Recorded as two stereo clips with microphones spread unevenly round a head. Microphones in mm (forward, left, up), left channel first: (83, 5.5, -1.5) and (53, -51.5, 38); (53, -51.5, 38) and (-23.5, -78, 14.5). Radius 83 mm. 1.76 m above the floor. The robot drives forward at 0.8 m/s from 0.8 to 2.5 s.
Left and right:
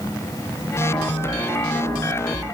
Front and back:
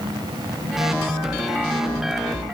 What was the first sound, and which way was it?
Only background noise.